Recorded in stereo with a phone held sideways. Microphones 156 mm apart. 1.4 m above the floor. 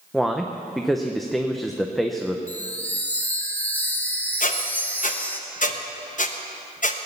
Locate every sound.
0.1 s a man speaking: centre (ahead or behind), 0.8 m
2.5 s a chime: 10° left (ahead or behind), 1.2 m
4.4 s a squeak: 55° left (ahead or behind), 1.0 m